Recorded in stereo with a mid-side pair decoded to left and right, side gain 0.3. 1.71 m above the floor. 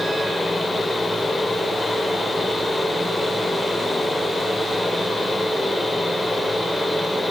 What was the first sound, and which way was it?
A fan, 35° left.